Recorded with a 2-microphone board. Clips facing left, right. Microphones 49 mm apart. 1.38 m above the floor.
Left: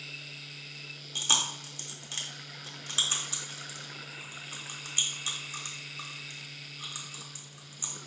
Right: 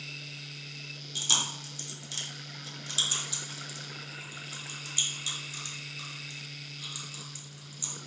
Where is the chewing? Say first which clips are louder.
Left 1 dB; 30° left (ahead or behind), 1.1 m.